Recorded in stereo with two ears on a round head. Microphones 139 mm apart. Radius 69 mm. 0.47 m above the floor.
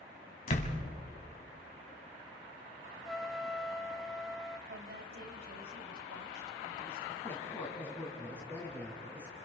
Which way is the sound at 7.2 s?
10° left (ahead or behind).